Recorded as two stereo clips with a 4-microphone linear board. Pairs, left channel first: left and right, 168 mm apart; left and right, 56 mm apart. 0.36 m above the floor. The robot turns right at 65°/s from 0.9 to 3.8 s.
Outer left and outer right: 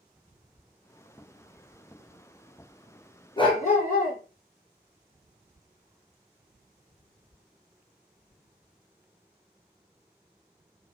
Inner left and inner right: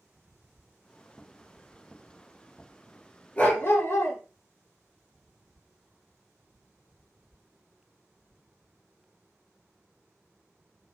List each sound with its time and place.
3.4 s a dog barking: 25° left (ahead or behind), 1.5 m; by 4.2 s 55° left (ahead or behind), 1.5 m